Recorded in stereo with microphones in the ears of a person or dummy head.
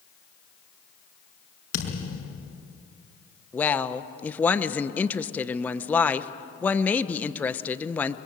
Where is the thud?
75° left (ahead or behind), 5 m.